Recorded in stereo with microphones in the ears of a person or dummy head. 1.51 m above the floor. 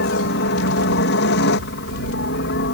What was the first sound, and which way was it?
A helicopter, 55° left (ahead or behind).